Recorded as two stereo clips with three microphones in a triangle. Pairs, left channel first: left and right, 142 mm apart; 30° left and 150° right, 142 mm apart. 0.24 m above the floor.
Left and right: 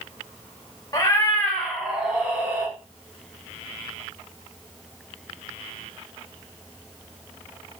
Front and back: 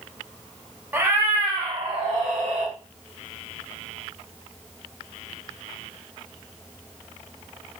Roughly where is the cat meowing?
Behind left.